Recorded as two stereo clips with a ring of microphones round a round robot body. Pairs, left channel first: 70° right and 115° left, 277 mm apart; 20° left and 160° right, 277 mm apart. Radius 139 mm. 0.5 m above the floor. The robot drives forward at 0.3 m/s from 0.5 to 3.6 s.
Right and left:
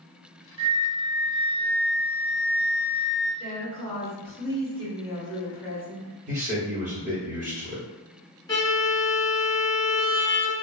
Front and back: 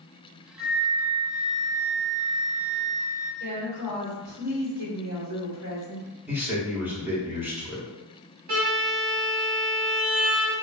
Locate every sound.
0.6 s a flute: 125° left, 0.8 m; by 3.3 s 160° left, 1.3 m
3.4 s a woman speaking: 165° right, 1.4 m
6.3 s a man speaking: 125° left, 0.8 m
8.5 s a violin: 140° right, 1.1 m